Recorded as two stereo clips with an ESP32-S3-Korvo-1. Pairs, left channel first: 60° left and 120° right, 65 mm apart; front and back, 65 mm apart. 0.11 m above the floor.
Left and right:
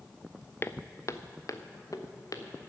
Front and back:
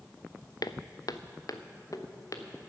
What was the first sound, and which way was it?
Footsteps, 10° left.